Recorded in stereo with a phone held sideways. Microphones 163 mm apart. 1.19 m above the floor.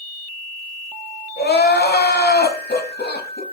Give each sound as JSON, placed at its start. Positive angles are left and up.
{"t": 1.4, "sound": "crying", "side_deg": 85, "distance_m": 0.6}